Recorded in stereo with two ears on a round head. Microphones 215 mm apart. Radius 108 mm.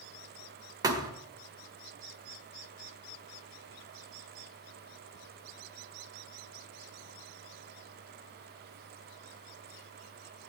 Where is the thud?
15° right (ahead or behind), 1.4 m.